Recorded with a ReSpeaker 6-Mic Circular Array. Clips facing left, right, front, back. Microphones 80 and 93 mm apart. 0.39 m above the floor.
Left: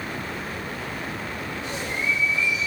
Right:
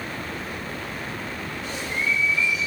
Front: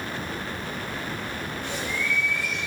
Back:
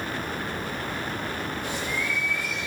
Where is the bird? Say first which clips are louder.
Even, even; 100° left, 1.8 m.